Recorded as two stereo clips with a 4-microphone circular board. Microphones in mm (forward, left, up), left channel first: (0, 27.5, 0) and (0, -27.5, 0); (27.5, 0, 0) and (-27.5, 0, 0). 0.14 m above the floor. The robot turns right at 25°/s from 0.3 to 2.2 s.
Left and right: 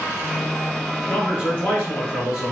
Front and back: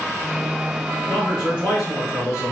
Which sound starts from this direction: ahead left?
A man speaking, at 1.1 s.